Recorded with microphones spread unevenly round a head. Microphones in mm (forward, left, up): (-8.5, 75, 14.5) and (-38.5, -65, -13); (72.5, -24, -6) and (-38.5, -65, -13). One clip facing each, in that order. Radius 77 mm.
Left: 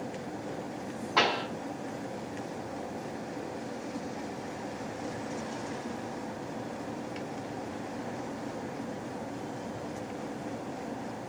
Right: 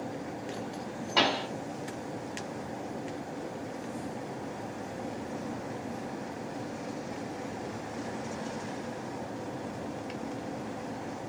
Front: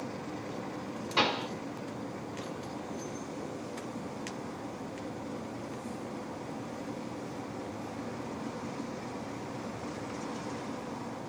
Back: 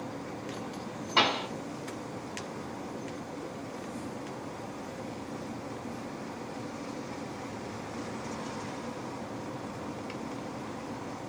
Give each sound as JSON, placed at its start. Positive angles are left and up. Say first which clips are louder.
{"t": 1.2, "sound": "a pop", "louder": "even, back 2 dB", "azimuth_deg": -165, "distance_m": 1.6}